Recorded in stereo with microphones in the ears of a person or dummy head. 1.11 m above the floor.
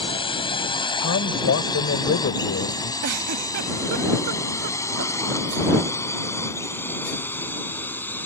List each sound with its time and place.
0.0 s a drone: 30° left (ahead or behind); by 8.3 s 15° left (ahead or behind)
1.0 s a man speaking: 65° left (ahead or behind)
3.0 s a giggle: 55° right (ahead or behind)